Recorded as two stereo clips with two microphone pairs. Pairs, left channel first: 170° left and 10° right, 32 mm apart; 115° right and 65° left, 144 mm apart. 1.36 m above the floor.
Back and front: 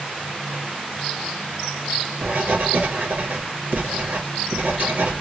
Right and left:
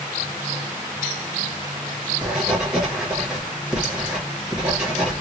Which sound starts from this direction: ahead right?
Writing, at 2.2 s.